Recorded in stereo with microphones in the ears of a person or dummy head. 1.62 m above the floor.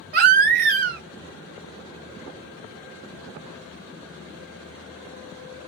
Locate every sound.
0.1 s a baby crying: 45° right (ahead or behind), 0.6 m